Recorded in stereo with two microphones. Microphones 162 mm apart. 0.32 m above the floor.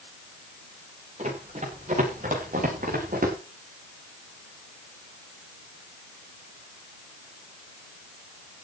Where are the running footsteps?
50° right (ahead or behind), 9 m; by 3.4 s 65° right (ahead or behind), 7.5 m.